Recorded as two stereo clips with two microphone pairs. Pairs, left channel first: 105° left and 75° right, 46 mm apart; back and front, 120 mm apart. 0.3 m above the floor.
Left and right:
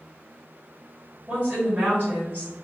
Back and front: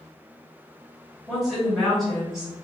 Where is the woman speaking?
85° right, 1.8 m.